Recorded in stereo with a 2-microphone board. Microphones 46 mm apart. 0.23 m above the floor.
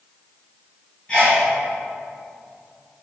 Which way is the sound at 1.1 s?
20° left (ahead or behind).